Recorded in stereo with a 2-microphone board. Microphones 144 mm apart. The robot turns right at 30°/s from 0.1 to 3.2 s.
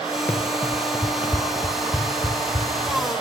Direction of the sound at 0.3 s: 10° left (ahead or behind).